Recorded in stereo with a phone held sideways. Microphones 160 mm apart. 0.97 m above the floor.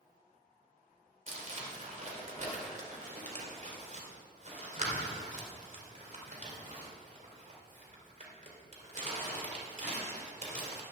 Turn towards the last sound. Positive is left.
turn(degrees=-50)  # may be behind; listen again after turning